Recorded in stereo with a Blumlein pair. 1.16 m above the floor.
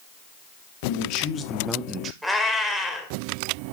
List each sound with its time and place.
0.8 s a man speaking: 55° left, 1.1 m; by 2.1 s 30° right, 0.9 m
2.2 s a cat meowing: straight ahead, 1.7 m